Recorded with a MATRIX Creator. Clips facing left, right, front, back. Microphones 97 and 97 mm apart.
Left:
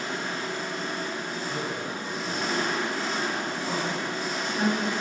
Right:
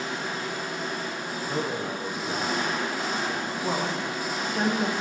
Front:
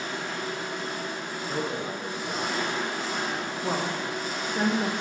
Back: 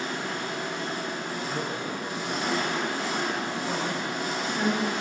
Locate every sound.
0.0 s an engine running: 170° right, 1.5 m
1.5 s a man speaking: 65° right, 0.8 m
3.6 s a woman speaking: 40° right, 1.1 m